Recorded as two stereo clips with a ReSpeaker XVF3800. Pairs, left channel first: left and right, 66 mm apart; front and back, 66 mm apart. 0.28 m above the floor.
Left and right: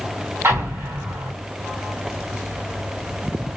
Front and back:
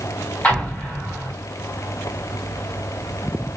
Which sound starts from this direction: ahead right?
An explosion, at 0.4 s.